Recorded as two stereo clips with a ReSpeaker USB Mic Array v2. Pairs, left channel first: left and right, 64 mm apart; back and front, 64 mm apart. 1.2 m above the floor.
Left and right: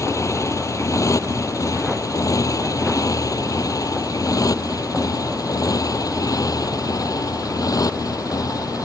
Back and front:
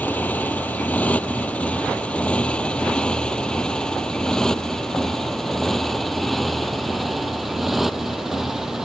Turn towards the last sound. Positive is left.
turn(degrees=85)